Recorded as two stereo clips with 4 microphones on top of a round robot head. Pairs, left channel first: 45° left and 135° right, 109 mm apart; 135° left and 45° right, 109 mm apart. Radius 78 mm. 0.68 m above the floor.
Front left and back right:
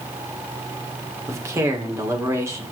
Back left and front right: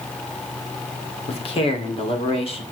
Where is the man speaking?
160° left, 2 m.